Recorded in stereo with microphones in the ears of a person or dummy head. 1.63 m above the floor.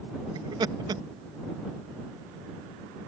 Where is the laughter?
20° right (ahead or behind).